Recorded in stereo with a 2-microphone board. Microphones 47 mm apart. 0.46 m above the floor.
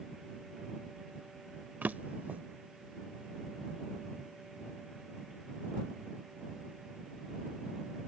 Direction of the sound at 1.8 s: 40° right (ahead or behind).